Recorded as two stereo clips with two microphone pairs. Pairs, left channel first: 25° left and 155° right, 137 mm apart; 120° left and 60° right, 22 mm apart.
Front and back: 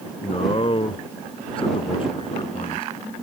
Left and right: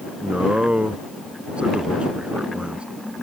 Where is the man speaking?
25° right.